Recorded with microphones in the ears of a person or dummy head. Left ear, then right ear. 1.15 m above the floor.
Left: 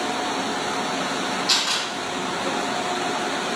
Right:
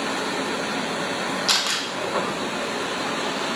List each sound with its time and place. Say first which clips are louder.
1.5 s a camera shutter: even; 55° right (ahead or behind), 1.1 m